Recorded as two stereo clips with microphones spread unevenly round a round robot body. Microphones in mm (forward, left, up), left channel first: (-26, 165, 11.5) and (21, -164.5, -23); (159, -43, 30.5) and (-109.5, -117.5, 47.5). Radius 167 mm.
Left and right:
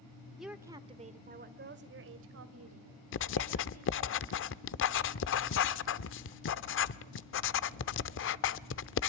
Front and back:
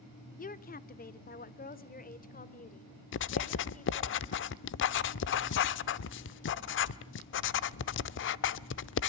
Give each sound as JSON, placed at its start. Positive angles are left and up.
{"t": 0.4, "sound": "a woman speaking", "azimuth_deg": 0, "distance_m": 1.1}
{"t": 3.1, "sound": "writing", "azimuth_deg": 45, "distance_m": 0.5}